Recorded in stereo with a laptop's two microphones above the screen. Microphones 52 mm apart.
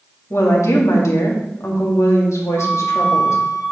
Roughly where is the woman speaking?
Left.